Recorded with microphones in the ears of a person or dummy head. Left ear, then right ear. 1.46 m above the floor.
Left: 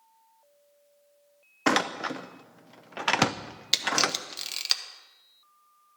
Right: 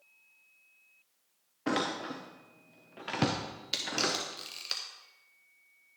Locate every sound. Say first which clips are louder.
1.7 s a door slam: left 7 dB; 45° left (ahead or behind), 0.5 m
3.7 s a camera shutter: left 6 dB; 30° left (ahead or behind), 0.8 m